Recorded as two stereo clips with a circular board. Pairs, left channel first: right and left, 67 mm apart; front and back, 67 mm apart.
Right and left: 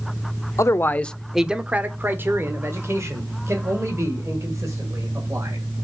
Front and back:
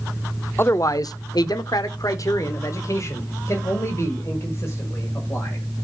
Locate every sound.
0.6 s a man speaking: 50° right, 0.6 m; by 5.7 s 55° left, 3.5 m